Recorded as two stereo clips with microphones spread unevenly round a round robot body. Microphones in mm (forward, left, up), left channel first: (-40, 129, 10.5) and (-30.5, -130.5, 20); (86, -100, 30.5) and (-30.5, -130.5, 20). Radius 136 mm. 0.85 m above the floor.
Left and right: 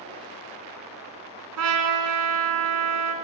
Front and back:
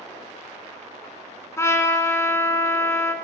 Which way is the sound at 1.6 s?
50° right.